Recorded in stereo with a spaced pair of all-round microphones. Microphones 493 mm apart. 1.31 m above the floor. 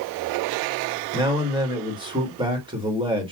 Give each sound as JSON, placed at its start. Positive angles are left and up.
{"t": 1.1, "sound": "a man speaking", "side_deg": -10, "distance_m": 1.6}